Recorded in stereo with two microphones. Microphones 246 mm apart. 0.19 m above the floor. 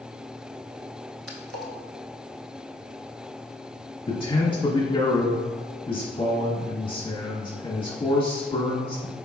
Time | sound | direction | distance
1.3 | a splash | 65° right (ahead or behind) | 0.7 m
4.1 | a man speaking | 20° left (ahead or behind) | 1.2 m